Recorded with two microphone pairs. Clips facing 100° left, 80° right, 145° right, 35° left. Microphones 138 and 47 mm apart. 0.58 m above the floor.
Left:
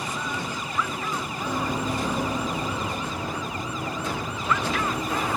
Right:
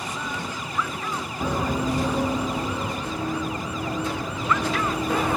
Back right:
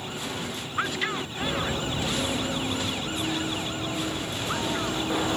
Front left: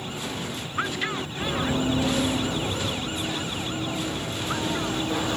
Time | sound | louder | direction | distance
1.4 | running footsteps | right 4 dB, front left 4 dB | 60° right | 1.0 m
3.0 | running footsteps | right 3 dB, back right 1 dB | 75° right | 4 m